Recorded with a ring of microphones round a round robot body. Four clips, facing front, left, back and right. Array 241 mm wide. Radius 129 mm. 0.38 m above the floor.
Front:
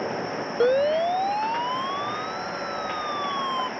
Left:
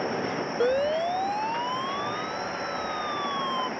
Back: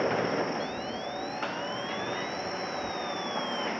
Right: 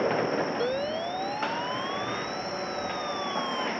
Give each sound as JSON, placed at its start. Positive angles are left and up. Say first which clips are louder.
{"t": 0.6, "sound": "a siren", "louder": "left 5 dB, front 14 dB", "azimuth_deg": 20}